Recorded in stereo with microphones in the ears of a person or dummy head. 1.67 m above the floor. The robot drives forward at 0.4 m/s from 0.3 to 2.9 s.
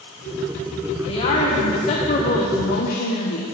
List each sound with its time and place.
1.1 s a woman speaking: 30° left (ahead or behind), 1.4 m; by 3.4 s 55° left (ahead or behind), 0.9 m